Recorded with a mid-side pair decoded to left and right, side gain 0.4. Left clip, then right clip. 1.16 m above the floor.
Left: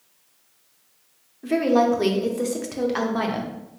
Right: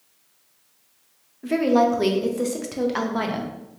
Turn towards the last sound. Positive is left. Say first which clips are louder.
# even
turn(degrees=-5)